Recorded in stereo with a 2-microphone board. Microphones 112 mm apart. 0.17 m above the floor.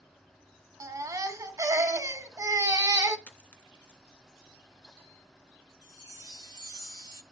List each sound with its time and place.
0.8 s a baby crying: 30° right (ahead or behind), 0.6 m
3.3 s a dropped coin: 15° left (ahead or behind), 0.8 m
5.8 s a chime: 40° left (ahead or behind), 0.6 m